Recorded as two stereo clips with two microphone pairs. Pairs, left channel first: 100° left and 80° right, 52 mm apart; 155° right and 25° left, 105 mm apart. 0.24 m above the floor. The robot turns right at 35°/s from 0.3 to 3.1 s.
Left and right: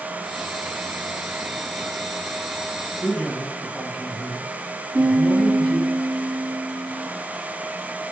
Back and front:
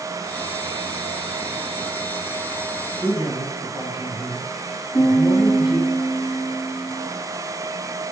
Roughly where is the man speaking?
Behind.